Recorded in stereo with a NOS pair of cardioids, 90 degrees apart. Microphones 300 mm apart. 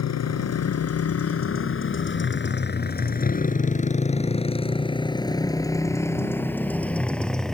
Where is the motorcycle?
60° left; by 7.6 s straight ahead.